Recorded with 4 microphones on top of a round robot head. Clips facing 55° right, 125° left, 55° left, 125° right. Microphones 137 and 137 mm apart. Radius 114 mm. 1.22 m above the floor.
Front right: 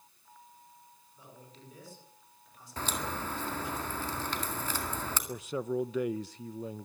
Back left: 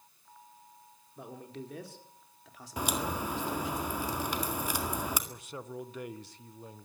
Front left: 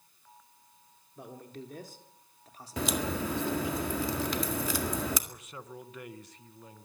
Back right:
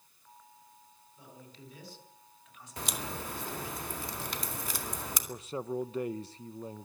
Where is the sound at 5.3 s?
65° right, 0.7 m.